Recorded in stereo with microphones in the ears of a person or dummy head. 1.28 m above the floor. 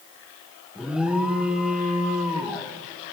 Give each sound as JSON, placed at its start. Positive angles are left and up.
{"t": 0.8, "sound": "an alarm", "side_deg": -5, "distance_m": 1.5}